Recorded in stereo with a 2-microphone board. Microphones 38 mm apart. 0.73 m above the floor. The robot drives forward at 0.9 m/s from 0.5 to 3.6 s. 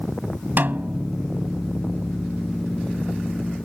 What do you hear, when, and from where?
0.6 s a snare drum: 50° right (ahead or behind); by 1.1 s 60° right (ahead or behind)